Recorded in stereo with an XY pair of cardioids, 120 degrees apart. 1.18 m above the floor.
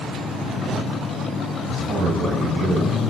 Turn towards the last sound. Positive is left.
turn(degrees=-30)